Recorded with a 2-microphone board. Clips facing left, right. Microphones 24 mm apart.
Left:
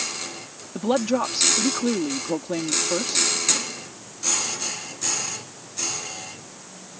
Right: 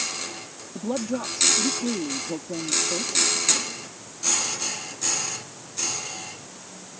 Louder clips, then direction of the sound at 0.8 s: Left 6 dB; 85° left.